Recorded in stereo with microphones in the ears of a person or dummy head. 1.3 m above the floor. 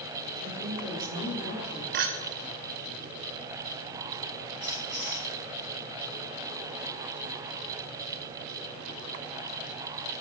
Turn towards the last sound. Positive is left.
turn(degrees=-20)  # may be behind; listen again after turning